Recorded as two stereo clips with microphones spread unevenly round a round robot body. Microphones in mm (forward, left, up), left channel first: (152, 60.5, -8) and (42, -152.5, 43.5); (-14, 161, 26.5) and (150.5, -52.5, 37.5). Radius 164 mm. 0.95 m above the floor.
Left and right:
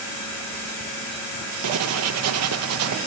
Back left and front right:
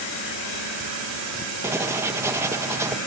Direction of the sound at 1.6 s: 135° right.